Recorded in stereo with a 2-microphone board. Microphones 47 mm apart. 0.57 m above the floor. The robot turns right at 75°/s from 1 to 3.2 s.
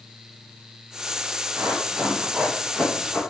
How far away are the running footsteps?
About 8.5 m.